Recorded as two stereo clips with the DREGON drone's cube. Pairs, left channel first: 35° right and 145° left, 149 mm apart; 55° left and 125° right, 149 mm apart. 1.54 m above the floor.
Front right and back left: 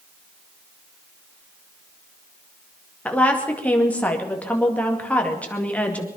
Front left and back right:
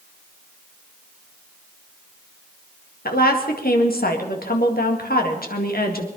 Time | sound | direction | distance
3.0 | a woman speaking | 45° left | 2 m